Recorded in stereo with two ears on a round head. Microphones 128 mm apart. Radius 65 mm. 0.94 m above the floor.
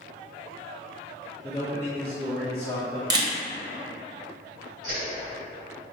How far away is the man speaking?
About 0.5 m.